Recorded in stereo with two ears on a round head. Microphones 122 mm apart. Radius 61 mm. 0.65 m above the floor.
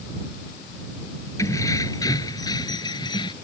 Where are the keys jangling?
25° left (ahead or behind); by 3.3 s 35° left (ahead or behind).